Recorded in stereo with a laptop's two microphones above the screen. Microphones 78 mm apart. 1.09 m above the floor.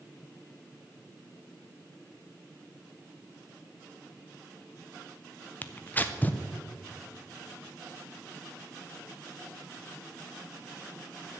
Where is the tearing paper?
25° left (ahead or behind), 0.5 m.